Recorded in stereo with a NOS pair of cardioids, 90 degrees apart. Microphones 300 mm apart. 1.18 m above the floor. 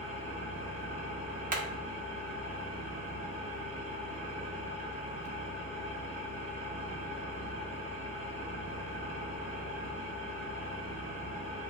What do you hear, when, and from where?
0.0 s an engine running: 25° right, 0.8 m
1.5 s hammering: 30° right, 0.7 m